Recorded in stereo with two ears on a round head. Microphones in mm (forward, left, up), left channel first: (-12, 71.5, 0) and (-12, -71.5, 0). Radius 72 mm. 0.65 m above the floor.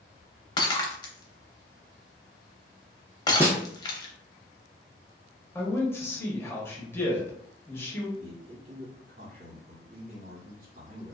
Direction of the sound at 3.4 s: 15° right (ahead or behind).